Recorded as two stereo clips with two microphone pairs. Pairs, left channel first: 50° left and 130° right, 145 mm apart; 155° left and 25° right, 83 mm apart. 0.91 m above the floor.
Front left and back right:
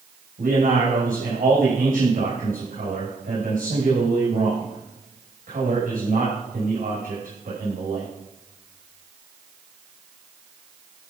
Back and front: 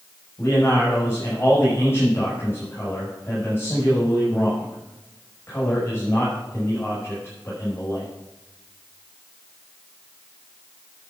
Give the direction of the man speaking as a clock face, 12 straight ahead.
5 o'clock.